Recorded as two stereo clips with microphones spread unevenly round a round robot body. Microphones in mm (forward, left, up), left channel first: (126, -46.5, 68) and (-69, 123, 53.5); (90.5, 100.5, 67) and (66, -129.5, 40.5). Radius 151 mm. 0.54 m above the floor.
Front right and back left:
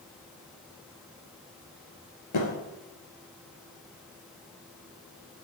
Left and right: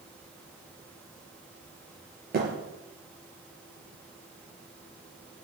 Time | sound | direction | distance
2.3 | a thud | 50° right | 4 m